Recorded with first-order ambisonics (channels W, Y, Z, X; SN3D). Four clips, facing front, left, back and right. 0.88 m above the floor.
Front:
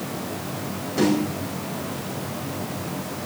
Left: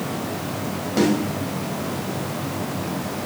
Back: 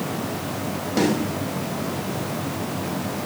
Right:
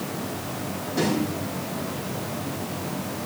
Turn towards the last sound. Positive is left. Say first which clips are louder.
# left 5 dB, even
turn(degrees=135)